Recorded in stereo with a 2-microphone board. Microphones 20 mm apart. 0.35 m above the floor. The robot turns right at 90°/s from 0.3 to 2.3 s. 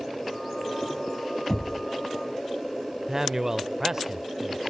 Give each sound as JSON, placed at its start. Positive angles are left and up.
{"t": 1.5, "sound": "knocking", "side_deg": 25, "distance_m": 1.9}
{"t": 3.1, "sound": "a man speaking", "side_deg": -25, "distance_m": 0.9}